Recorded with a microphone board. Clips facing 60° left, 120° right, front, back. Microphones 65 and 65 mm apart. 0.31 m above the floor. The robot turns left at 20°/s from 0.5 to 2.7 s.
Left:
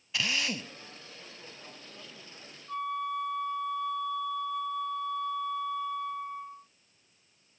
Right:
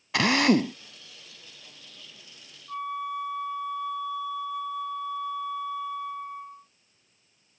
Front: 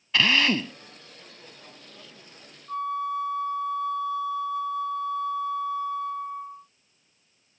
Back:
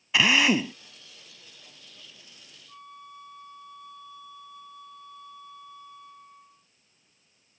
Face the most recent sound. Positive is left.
turn(degrees=-30)